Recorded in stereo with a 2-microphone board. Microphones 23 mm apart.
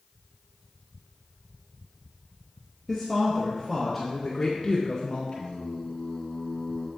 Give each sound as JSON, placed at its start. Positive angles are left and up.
{"t": 2.9, "sound": "a woman speaking", "side_deg": -15, "distance_m": 2.5}
{"t": 5.3, "sound": "singing", "side_deg": 60, "distance_m": 2.5}